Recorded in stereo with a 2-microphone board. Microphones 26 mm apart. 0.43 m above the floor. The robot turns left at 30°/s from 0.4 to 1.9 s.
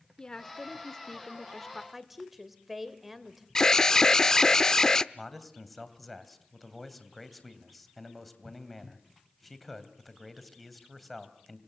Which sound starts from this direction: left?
An alarm, at 3.5 s.